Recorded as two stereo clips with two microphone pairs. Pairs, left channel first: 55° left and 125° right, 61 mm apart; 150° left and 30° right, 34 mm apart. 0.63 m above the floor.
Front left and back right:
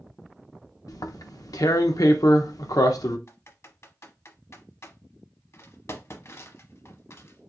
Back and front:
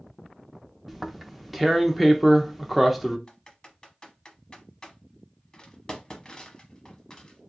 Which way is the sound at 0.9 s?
55° left.